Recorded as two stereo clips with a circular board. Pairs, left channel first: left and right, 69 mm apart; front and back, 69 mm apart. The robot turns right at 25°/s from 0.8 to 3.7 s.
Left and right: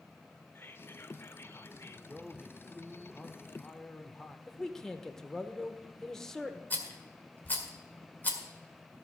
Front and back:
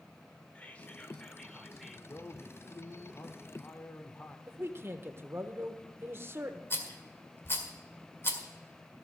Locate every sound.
0.6 s whispering: 60° left, 1.0 m; by 2.0 s 90° left, 1.0 m
2.1 s a man speaking: 10° right, 0.8 m; by 4.4 s 30° left, 0.8 m
4.5 s a man speaking: 170° left, 1.0 m
6.7 s a rattle: 40° left, 1.8 m